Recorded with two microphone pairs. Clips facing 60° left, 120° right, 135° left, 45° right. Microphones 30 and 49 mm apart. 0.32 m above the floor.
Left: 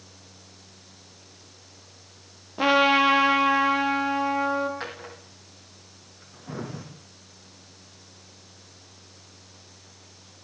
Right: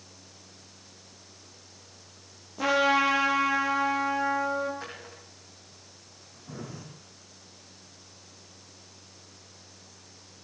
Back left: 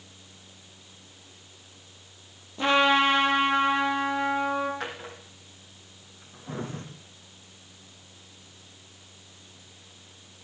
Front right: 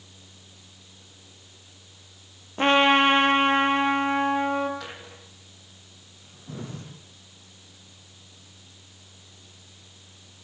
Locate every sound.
2.6 s a trumpet: 5° left, 3.5 m
4.8 s a drawer: 90° left, 5 m